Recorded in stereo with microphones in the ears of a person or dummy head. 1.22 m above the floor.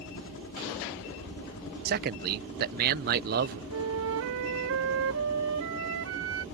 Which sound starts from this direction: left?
A helicopter, at 0.0 s.